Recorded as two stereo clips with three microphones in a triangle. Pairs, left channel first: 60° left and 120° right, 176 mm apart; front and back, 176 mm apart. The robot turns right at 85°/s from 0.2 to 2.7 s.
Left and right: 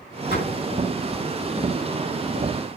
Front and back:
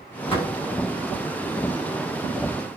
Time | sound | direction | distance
0.3 | a door slam | 55° left | 7.5 m